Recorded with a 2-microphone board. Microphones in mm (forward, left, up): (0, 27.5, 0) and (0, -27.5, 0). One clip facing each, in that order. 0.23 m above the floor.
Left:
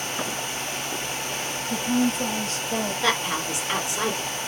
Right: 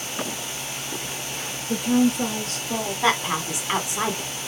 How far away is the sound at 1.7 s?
About 3 m.